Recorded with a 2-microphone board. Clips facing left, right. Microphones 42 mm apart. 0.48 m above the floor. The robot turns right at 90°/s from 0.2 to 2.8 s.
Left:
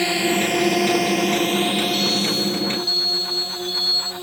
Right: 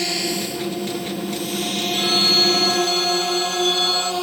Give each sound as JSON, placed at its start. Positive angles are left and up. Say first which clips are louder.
{"t": 0.0, "sound": "a drone", "louder": "left 5 dB", "side_deg": 25}
{"t": 1.9, "sound": "a phone ringing", "louder": "right 2 dB", "azimuth_deg": -135}